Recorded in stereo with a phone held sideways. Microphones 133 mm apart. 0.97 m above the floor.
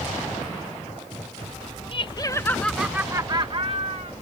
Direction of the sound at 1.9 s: 40° left (ahead or behind).